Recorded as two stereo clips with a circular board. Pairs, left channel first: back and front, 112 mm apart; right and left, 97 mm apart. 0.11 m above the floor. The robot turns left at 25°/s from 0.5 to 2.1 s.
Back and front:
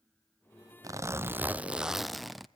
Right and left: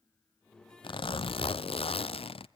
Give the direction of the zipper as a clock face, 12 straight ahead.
2 o'clock.